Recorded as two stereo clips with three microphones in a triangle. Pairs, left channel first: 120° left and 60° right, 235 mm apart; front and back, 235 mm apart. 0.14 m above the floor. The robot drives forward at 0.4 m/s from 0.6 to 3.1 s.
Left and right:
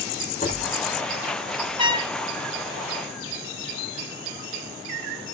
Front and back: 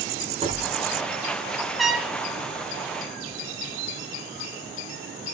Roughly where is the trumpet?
Right.